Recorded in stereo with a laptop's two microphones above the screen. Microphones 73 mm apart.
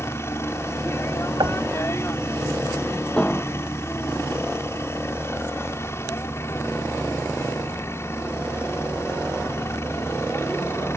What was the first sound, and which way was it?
A helicopter, 35° left (ahead or behind).